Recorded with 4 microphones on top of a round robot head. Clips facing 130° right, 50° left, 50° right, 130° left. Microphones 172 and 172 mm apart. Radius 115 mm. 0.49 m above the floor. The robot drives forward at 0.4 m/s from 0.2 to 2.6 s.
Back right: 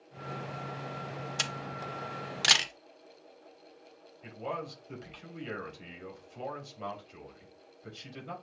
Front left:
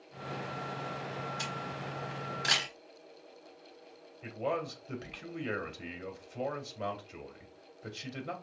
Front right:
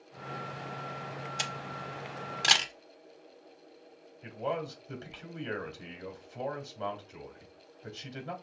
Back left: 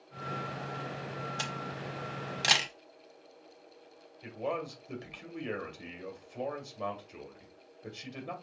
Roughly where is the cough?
I don't hear a cough.